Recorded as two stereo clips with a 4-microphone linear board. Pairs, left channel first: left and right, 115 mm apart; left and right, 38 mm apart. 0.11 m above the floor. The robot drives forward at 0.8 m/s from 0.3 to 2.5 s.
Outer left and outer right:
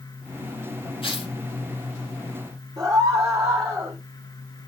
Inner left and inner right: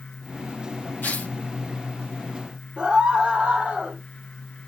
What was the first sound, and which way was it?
Tearing paper, 50° left (ahead or behind).